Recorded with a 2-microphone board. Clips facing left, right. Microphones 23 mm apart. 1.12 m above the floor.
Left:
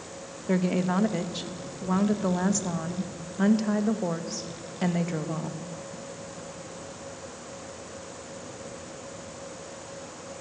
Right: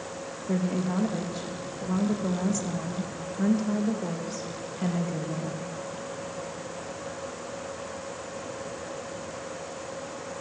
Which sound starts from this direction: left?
A woman speaking, at 0.5 s.